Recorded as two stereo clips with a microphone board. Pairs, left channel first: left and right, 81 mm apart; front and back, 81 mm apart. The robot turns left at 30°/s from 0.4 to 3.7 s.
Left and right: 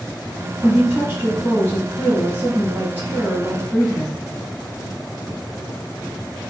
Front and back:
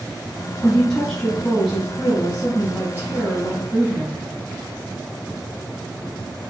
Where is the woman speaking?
65° right, 1.8 m; by 4.2 s 155° right, 1.8 m.